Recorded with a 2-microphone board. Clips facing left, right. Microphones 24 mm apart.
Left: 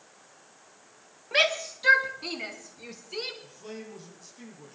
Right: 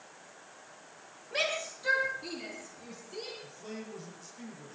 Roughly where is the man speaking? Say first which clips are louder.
Left 1 dB; centre.